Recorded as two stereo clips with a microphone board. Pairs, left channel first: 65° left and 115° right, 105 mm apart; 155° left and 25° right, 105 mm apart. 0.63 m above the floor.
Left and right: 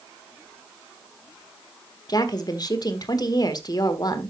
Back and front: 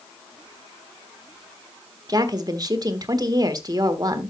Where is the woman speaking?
25° left, 1.5 m.